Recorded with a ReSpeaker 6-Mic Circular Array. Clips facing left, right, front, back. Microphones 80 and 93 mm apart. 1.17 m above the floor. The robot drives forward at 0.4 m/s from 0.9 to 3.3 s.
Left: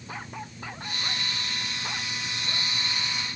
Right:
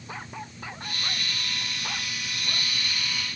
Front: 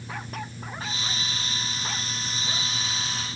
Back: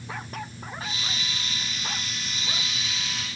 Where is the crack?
No crack in this recording.